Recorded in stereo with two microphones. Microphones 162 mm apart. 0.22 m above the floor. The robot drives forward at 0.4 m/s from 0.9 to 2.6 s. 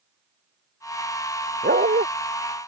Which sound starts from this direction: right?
A dog barking, at 1.6 s.